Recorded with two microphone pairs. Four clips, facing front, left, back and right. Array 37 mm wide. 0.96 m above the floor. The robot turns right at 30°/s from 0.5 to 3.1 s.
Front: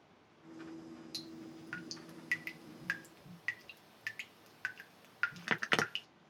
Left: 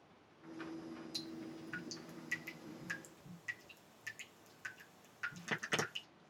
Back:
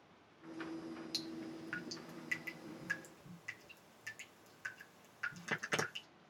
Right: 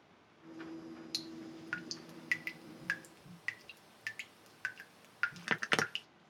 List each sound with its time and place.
1.1 s dripping: 105° right, 0.9 m; by 6.0 s 45° right, 0.9 m